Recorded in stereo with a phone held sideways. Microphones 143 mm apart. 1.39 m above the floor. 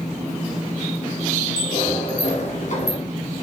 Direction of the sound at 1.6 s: 50° left (ahead or behind).